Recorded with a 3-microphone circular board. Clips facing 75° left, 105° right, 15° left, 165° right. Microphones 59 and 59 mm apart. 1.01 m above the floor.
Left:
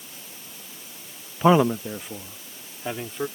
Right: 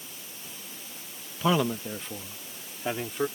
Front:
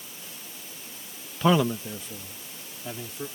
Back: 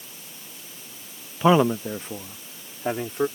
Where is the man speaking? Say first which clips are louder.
Left 7 dB, back 4 dB; 120° left; by 3.3 s 170° left.